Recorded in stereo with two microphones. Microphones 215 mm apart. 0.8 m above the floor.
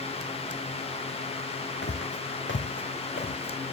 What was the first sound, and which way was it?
Footsteps, 65° left (ahead or behind).